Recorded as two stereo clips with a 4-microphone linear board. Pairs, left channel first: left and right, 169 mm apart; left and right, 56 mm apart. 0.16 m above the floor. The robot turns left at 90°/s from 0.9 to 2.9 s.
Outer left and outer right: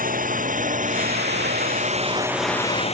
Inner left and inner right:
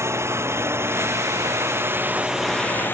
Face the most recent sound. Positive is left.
turn(degrees=40)  # may be behind; listen again after turning